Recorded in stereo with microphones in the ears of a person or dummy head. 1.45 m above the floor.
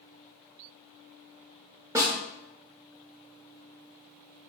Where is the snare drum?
10° right (ahead or behind), 0.5 m.